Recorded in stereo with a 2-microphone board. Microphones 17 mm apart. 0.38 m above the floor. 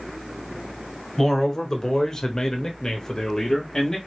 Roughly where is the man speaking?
Left.